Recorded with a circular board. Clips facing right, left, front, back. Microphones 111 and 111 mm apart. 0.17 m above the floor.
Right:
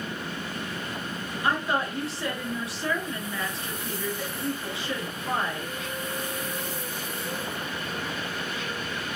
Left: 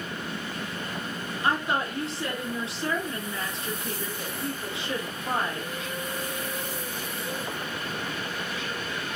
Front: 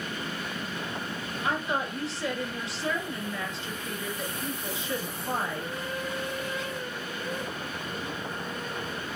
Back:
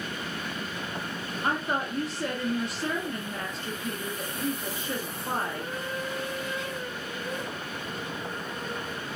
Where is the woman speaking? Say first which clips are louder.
Even, back 1 dB; 150° left, 2 m.